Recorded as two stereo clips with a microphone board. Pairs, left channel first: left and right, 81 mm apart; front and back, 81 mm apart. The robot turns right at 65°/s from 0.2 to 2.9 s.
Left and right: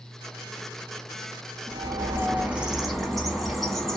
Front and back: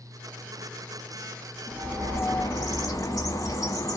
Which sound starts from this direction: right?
A bird, at 1.7 s.